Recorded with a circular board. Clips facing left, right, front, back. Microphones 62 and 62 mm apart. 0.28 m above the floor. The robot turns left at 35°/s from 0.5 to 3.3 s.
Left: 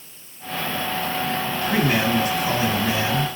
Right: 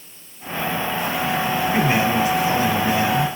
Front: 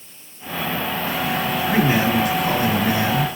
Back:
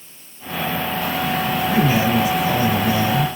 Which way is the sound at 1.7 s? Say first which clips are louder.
Even, even; 65° left.